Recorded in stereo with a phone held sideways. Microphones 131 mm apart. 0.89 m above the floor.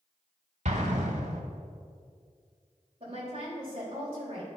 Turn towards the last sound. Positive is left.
turn(degrees=-45)  # may be behind; listen again after turning